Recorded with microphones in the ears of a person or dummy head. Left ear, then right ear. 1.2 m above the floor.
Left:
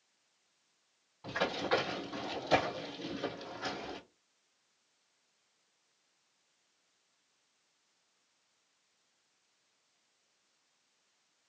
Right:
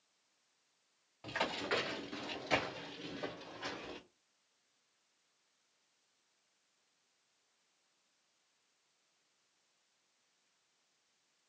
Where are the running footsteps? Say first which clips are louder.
Left 4 dB; 35° right (ahead or behind), 1.5 m; by 4.0 s 10° right (ahead or behind), 1.8 m.